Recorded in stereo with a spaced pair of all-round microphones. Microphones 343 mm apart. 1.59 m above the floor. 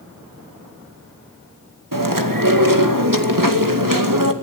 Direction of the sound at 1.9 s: 80° right.